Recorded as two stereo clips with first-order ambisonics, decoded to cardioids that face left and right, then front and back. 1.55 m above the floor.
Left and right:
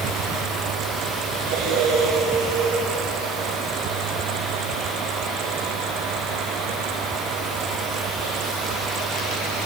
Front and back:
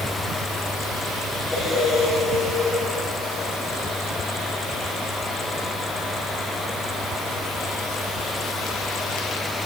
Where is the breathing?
85° right, 9.5 m.